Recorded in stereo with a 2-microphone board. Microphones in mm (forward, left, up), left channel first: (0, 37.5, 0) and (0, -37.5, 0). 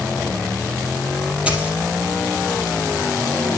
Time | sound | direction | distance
1.5 | a dropped coin | 15° right (ahead or behind) | 4 m